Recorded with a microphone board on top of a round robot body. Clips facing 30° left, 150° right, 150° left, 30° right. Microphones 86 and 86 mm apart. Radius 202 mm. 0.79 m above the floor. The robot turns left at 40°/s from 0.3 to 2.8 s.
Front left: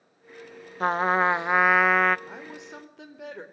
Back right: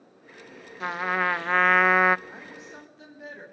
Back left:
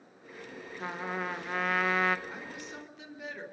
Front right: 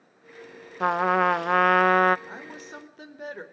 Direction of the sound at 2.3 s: 35° left.